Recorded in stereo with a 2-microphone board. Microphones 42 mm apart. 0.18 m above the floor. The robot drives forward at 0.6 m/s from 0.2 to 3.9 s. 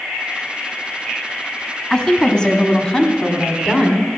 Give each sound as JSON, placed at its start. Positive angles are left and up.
{"t": 1.9, "sound": "a woman speaking", "side_deg": 15, "distance_m": 1.4}